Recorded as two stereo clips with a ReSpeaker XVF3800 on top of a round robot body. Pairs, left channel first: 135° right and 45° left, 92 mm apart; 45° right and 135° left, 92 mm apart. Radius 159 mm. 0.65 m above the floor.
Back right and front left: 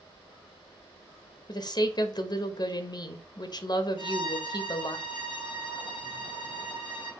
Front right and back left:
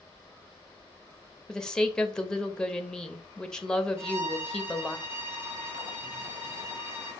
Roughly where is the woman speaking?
Behind right.